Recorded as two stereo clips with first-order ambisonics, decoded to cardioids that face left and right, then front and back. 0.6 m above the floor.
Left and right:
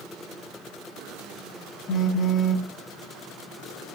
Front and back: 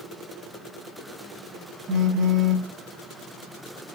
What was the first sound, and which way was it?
A phone buzzing, 145° left.